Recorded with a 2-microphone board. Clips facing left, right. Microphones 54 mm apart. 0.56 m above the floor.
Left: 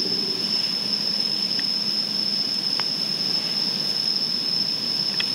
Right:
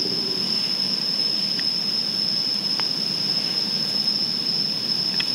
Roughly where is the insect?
Centre.